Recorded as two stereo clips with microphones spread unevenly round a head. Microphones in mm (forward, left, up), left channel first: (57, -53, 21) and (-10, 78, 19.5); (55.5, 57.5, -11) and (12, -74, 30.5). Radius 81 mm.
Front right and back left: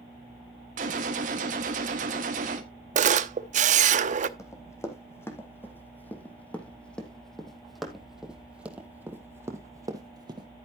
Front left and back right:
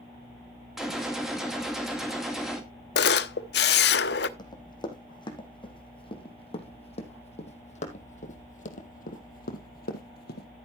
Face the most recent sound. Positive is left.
turn(degrees=60)